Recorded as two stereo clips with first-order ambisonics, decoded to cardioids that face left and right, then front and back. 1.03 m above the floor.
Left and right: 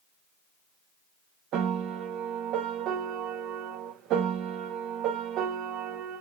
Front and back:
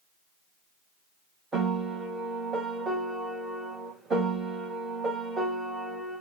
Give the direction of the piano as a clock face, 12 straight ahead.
4 o'clock.